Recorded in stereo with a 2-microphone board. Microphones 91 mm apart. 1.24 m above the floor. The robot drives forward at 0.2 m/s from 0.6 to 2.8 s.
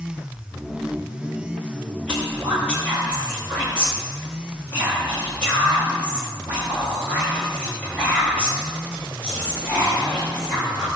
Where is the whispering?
15° left (ahead or behind), 2.5 m.